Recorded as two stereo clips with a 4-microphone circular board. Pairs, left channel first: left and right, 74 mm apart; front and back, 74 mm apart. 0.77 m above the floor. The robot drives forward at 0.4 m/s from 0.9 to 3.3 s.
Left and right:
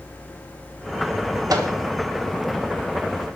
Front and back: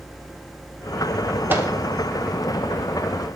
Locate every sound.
1.5 s a microwave: 120° right, 1.5 m